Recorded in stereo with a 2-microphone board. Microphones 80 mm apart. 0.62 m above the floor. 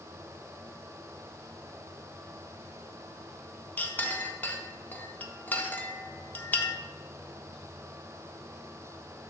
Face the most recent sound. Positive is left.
turn(degrees=25)  # may be behind; listen again after turning